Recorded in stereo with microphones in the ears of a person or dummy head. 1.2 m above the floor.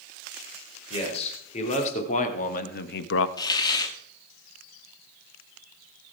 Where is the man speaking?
35° left (ahead or behind), 4 m; by 3.3 s 80° left, 0.9 m.